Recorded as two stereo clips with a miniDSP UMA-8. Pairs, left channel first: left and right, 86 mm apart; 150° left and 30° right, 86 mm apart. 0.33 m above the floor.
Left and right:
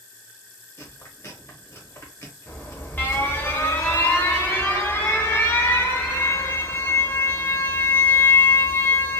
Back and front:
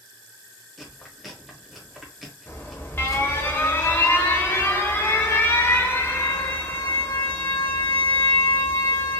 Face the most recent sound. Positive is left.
turn(degrees=125)